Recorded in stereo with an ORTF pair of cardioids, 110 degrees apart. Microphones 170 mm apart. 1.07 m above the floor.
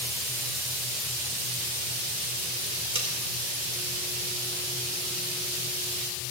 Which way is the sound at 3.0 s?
35° right.